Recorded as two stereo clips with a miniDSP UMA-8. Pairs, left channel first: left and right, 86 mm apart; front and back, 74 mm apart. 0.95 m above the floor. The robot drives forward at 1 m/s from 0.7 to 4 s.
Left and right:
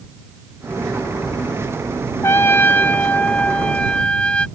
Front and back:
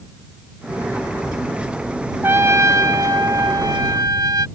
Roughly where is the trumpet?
Behind left.